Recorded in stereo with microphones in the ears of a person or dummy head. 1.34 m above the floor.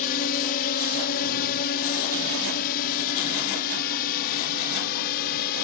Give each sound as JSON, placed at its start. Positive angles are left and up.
{"t": 0.0, "sound": "a drone", "side_deg": 45}